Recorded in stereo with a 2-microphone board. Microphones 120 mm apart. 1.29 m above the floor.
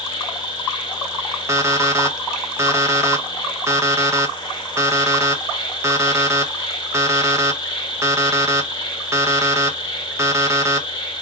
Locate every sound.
0.0 s an insect: 40° left (ahead or behind), 1.2 m
1.5 s an alarm clock: 25° right (ahead or behind), 0.6 m